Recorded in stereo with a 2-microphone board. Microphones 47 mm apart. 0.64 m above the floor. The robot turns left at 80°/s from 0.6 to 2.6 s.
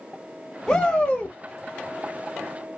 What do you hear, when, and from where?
0.7 s a shout: 10° left (ahead or behind), 1.2 m; by 1.4 s 20° left (ahead or behind), 1.2 m